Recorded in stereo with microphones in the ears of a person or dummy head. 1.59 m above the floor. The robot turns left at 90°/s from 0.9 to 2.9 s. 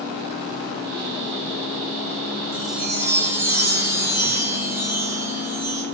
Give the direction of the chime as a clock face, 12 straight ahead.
11 o'clock.